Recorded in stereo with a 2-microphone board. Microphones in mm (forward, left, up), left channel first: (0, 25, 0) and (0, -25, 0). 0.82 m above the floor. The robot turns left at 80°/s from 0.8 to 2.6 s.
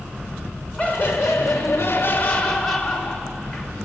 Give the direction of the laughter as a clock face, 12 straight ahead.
7 o'clock.